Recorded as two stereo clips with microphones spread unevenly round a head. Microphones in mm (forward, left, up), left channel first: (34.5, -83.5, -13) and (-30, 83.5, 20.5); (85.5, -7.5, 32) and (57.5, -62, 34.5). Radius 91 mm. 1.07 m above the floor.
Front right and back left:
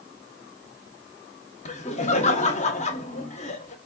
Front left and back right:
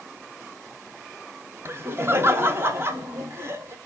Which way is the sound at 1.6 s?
80° right.